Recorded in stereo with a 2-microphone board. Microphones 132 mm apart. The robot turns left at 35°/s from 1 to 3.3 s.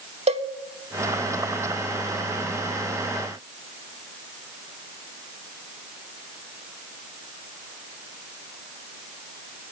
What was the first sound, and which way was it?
A cowbell, 50° right (ahead or behind).